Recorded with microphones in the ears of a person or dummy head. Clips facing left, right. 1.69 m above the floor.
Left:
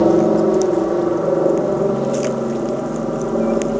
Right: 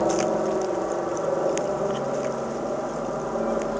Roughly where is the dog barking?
I don't hear a dog barking.